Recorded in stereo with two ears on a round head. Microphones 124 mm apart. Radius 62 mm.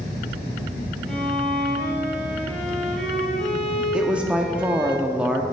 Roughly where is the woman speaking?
Centre.